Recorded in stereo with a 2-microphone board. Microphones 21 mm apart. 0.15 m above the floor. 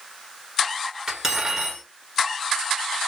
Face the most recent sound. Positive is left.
turn(degrees=-20)  # may be behind; listen again after turning